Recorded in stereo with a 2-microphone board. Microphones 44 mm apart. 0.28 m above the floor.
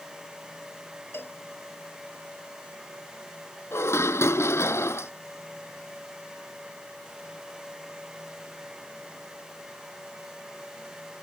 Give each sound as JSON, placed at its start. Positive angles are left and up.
{"t": 1.1, "sound": "a cowbell", "side_deg": 60}
{"t": 3.7, "sound": "dishes clattering", "side_deg": 80}